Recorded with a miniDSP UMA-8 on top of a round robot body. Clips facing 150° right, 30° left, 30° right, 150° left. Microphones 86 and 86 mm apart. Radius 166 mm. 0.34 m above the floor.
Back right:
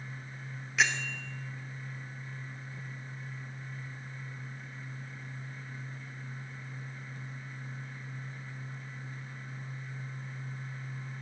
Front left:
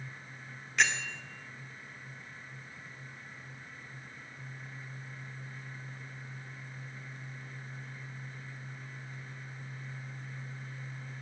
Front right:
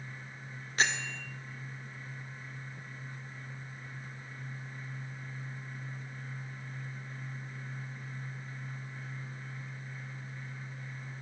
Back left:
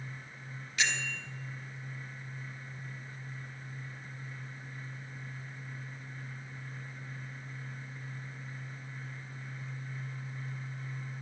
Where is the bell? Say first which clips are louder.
Even, front right 3 dB; 65° right, 2.0 m.